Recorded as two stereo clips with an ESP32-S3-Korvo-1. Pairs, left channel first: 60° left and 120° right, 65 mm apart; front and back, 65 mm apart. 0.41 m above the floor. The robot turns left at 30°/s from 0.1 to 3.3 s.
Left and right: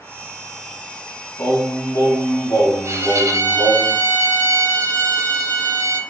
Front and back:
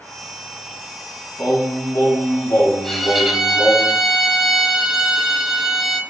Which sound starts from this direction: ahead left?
Singing, at 1.4 s.